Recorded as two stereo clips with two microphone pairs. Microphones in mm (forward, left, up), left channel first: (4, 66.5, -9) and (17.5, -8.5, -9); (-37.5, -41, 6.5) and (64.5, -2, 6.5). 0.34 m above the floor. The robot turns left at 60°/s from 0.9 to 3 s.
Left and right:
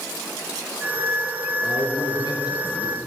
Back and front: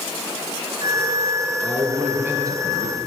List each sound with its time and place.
1.6 s a man speaking: 130° left, 3.5 m; by 3.1 s 45° left, 3.5 m